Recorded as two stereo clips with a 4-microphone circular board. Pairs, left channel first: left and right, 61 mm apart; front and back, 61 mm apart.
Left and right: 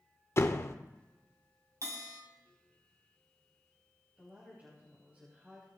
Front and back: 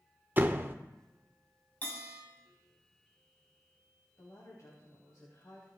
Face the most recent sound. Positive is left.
turn(degrees=-30)